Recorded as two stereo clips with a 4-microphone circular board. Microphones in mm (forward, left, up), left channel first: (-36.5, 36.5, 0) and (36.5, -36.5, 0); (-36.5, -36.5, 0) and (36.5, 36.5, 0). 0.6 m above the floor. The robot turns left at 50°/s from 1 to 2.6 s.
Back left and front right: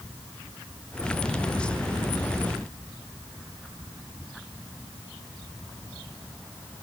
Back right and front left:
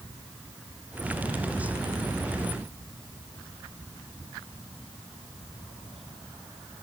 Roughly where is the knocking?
I don't hear knocking.